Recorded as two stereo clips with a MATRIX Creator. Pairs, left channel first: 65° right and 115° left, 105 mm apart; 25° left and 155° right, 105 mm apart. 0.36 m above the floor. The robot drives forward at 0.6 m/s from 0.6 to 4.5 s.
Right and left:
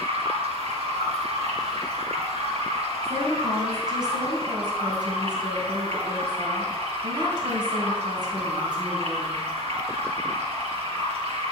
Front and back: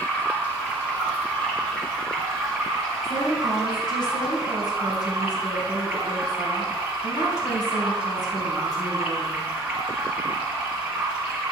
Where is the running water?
95° left, 4.5 m; by 11.5 s 125° left, 5 m.